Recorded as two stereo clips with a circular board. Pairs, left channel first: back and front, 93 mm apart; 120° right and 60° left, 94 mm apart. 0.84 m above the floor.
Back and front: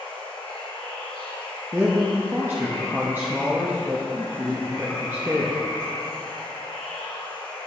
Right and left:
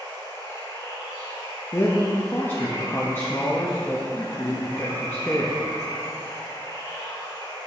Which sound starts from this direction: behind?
Running water, at 0.0 s.